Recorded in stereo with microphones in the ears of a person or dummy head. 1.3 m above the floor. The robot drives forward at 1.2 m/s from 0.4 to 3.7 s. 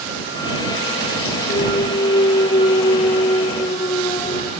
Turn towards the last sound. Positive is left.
turn(degrees=25)  # may be behind; listen again after turning